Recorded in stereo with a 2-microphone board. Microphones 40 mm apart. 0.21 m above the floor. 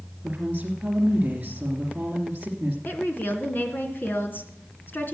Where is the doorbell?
No doorbell in this recording.